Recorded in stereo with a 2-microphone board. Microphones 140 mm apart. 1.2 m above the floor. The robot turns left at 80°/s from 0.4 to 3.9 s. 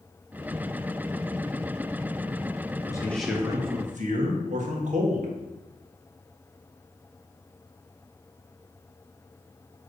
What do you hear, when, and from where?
2.9 s a man speaking: 30° left, 1.5 m; by 5.3 s 55° right, 1.5 m